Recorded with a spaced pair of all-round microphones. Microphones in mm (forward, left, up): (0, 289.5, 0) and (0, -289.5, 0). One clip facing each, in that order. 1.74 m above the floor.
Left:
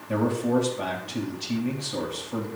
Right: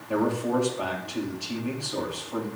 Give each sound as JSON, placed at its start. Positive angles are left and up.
{"t": 0.1, "sound": "a man speaking", "side_deg": 40, "distance_m": 4.0}